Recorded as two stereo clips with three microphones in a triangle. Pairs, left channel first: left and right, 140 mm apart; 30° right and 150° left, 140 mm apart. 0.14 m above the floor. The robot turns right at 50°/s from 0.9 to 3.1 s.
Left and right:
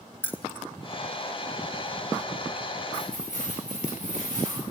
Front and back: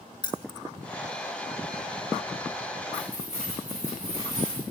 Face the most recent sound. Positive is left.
turn(degrees=-65)